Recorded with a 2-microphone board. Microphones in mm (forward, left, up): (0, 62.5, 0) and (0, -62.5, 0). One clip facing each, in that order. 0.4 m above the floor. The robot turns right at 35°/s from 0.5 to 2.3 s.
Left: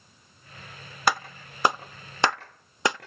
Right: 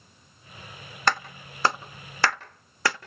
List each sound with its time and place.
1.1 s a clap: 10° left (ahead or behind), 0.6 m; by 3.1 s 20° left (ahead or behind), 0.6 m